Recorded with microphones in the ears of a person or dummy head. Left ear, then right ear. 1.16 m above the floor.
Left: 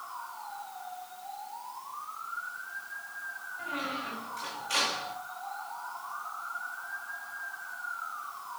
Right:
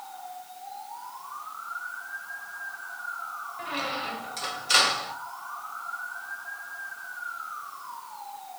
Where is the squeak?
55° right (ahead or behind), 1.6 m.